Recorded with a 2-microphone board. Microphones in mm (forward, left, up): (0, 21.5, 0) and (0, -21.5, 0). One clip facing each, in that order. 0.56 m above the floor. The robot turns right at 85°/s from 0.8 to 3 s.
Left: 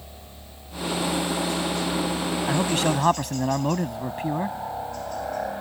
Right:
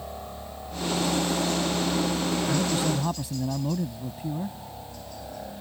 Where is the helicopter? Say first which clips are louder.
Right 8 dB; 45° right (ahead or behind); by 5.6 s 55° left (ahead or behind).